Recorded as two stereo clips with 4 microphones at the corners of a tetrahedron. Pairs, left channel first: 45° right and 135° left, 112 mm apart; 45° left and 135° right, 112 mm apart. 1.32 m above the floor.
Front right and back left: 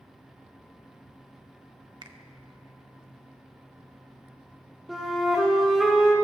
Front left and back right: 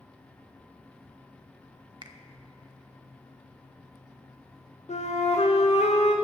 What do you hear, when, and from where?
2.0 s a finger snap: straight behind, 0.7 m
4.9 s a flute: 45° left, 1.1 m